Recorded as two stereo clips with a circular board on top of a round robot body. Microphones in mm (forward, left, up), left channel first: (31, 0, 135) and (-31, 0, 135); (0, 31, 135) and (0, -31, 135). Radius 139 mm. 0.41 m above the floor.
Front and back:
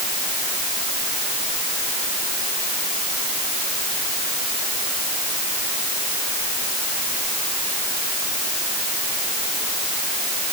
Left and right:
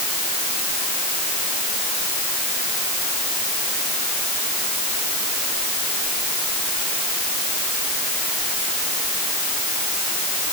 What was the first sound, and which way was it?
Only background noise.